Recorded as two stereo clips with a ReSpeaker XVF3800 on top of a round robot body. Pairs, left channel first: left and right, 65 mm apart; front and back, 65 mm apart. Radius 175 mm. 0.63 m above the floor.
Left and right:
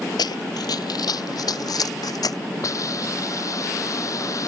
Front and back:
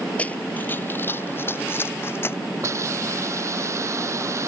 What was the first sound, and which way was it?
Running footsteps, 75° left.